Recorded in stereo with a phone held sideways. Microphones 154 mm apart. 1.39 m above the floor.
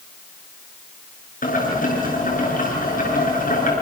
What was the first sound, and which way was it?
Boiling, 65° left (ahead or behind).